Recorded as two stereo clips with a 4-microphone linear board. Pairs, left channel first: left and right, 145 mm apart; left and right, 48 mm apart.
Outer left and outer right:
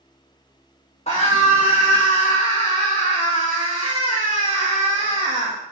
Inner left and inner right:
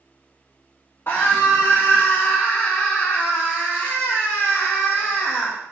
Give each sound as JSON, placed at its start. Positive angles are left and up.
{"t": 1.1, "sound": "a scream", "side_deg": 50, "distance_m": 1.5}